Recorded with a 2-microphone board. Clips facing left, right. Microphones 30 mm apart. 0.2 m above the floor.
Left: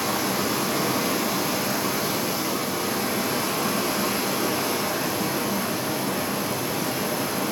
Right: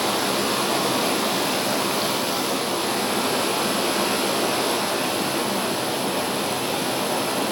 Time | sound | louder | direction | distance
0.0 | running water | right 2 dB | 60° right (ahead or behind) | 2.5 m